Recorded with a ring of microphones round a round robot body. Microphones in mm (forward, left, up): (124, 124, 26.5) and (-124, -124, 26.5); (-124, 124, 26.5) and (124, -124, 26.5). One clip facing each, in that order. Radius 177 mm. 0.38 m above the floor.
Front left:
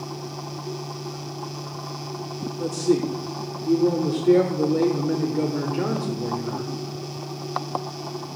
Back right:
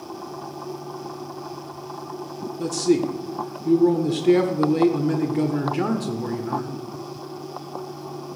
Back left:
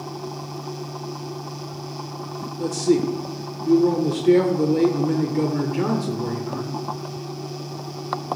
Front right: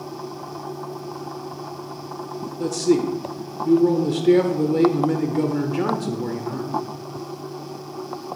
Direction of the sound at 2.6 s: 130° right.